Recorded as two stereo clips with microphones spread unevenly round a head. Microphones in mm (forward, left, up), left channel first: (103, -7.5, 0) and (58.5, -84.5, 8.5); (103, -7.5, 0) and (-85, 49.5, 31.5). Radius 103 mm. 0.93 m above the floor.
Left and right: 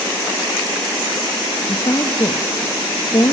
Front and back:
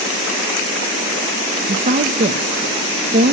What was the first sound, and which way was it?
A woman speaking, 115° left.